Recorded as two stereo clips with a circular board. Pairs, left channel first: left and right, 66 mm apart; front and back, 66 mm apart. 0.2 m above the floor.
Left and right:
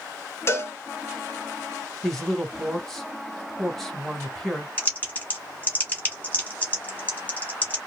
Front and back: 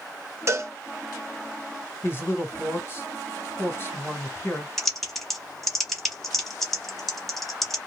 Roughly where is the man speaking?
Ahead.